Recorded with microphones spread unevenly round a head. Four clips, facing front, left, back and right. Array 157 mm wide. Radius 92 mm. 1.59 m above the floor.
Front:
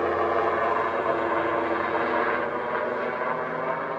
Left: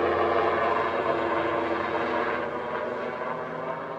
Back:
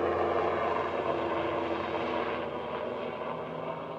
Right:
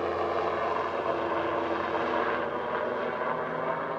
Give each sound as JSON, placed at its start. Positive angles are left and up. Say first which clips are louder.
{"t": 0.0, "sound": "a helicopter", "louder": "left 5 dB, front 4 dB", "azimuth_deg": 65}